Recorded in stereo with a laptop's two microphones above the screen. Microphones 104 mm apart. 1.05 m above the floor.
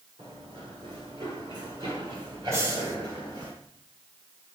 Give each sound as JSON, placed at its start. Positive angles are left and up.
{"t": 0.2, "sound": "running footsteps", "side_deg": -55, "distance_m": 7.0}
{"t": 2.5, "sound": "a hiss", "side_deg": -25, "distance_m": 1.0}